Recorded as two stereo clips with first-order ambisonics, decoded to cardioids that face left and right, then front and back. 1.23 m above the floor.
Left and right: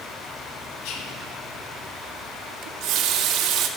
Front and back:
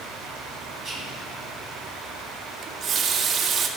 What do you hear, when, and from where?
0.8 s whispering: 95° left, 1.6 m
2.6 s a running tap: 120° right, 0.6 m